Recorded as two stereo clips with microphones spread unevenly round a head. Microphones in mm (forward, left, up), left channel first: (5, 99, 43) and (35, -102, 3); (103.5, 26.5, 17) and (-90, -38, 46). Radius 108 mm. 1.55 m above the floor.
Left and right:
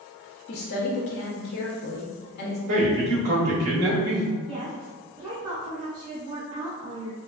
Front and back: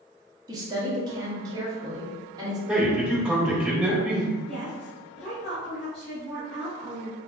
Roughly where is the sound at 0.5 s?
Behind left.